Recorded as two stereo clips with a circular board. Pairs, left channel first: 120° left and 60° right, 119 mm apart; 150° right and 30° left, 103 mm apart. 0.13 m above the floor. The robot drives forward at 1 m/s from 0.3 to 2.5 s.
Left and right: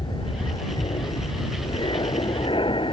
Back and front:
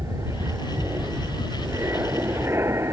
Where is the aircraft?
80° left; by 2.9 s 90° left.